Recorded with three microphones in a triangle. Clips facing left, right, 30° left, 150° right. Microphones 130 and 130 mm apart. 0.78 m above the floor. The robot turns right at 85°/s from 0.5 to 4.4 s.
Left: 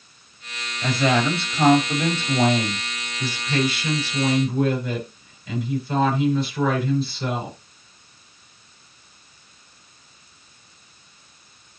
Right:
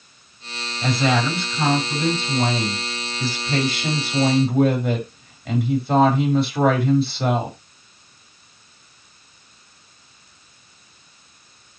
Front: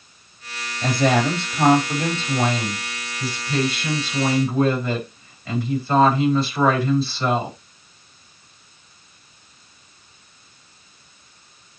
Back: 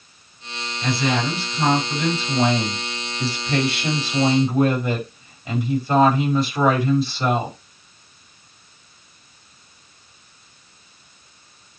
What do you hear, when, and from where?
0.8 s a woman speaking: 20° right, 4.5 m; by 7.6 s 75° right, 4.5 m